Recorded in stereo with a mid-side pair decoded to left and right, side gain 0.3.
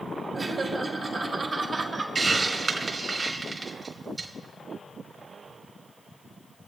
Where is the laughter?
50° right, 3 m.